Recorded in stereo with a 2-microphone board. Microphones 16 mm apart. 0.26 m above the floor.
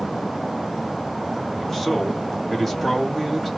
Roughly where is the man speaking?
Left.